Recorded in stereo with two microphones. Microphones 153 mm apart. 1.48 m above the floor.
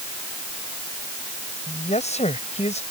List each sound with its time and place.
1.7 s a man speaking: 50° left (ahead or behind)